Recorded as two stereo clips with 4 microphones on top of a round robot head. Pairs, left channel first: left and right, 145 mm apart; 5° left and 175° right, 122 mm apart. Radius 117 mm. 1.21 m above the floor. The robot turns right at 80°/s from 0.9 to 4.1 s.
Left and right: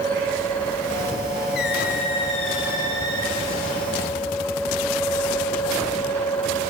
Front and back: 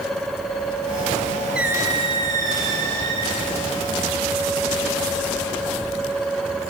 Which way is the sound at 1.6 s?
100° left.